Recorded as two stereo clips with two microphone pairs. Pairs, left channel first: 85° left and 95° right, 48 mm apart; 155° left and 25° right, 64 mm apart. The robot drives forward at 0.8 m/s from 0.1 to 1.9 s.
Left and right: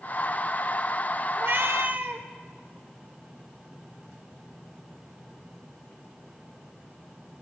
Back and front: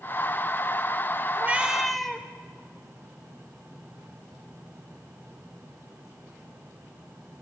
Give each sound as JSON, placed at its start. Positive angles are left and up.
{"t": 1.4, "sound": "a cat meowing", "azimuth_deg": -80, "distance_m": 0.7}